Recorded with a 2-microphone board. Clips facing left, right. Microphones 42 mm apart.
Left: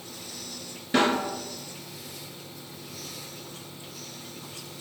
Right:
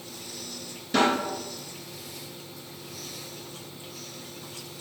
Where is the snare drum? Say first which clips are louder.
Even; 25° left (ahead or behind), 1.6 m.